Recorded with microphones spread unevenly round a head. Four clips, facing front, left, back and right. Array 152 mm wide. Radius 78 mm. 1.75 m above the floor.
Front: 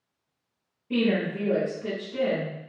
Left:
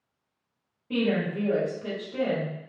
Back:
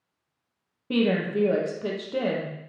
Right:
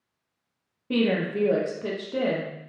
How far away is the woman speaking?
About 0.9 m.